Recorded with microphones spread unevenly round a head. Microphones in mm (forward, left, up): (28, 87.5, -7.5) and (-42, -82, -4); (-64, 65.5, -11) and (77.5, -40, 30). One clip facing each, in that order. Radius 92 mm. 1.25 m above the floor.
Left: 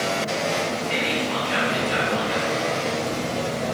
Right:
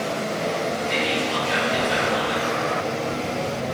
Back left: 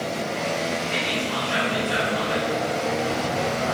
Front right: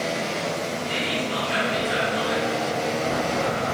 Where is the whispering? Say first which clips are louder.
Right 1 dB, even; 115° right, 2 m.